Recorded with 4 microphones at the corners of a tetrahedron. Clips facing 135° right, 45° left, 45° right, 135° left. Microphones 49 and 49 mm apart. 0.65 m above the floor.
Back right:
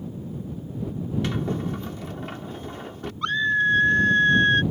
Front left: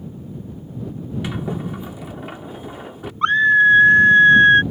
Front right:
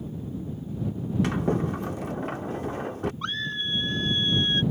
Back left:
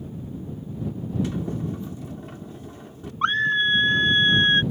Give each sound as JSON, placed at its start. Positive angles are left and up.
{"t": 1.2, "sound": "a sliding door", "azimuth_deg": -35}
{"t": 3.2, "sound": "a scream", "azimuth_deg": 95}